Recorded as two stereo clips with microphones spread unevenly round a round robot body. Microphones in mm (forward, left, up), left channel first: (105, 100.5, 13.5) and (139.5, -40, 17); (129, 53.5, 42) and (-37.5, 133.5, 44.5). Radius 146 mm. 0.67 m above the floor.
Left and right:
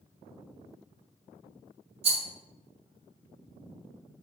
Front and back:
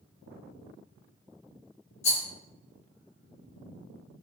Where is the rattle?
60° right, 0.6 m.